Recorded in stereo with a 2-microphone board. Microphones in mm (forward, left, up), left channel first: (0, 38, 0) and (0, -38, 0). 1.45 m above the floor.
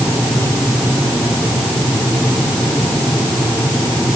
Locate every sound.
Only background noise.